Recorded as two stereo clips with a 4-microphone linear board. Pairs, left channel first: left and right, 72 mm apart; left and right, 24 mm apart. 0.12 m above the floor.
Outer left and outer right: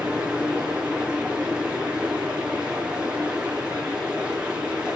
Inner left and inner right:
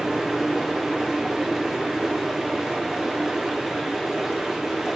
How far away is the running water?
About 6 m.